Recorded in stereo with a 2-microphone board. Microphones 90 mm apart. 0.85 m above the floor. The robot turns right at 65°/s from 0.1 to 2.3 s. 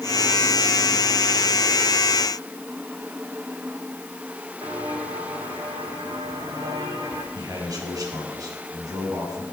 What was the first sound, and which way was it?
Footsteps, 75° right (ahead or behind).